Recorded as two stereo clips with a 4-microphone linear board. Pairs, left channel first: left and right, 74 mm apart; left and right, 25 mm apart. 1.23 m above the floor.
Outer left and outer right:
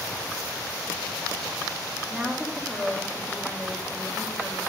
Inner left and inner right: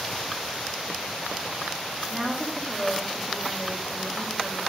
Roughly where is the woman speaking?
Centre.